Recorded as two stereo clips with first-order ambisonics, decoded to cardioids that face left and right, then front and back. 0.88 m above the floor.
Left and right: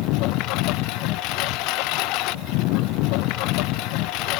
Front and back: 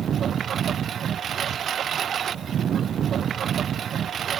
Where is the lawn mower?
120° left.